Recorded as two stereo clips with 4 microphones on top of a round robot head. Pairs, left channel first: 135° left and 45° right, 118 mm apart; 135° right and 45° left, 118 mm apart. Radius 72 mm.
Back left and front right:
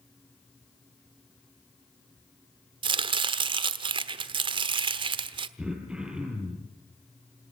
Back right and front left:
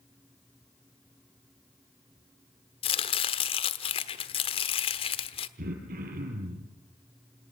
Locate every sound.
2.8 s chopping: 90° right, 1.2 m
5.6 s throat clearing: 40° left, 5.5 m